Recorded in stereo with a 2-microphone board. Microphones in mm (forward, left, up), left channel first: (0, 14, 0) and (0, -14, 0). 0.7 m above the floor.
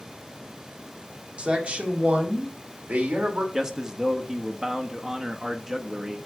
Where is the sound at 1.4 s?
40° right (ahead or behind), 2 m; by 3.4 s 70° right (ahead or behind), 3 m.